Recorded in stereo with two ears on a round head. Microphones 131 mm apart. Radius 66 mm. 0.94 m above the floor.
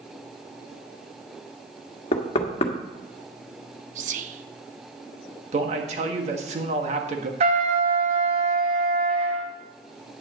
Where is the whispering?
55° right (ahead or behind), 0.9 m.